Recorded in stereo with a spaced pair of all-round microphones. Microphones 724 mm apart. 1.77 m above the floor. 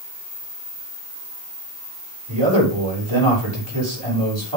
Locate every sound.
2.3 s a man speaking: 40° right (ahead or behind), 6.5 m